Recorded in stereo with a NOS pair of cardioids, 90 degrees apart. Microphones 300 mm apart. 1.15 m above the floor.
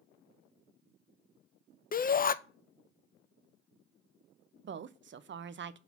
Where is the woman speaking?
40° right, 0.6 m.